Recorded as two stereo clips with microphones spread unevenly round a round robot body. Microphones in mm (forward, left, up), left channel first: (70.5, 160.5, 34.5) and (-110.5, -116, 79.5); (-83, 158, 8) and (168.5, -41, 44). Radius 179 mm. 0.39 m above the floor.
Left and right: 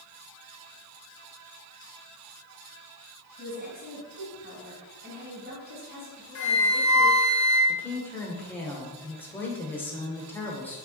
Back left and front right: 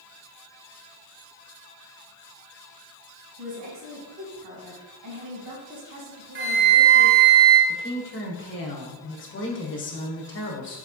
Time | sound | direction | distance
3.4 | a woman speaking | 60° right | 3 m
6.3 | a flute | 15° left | 1.7 m
7.7 | a woman speaking | 130° left | 1.2 m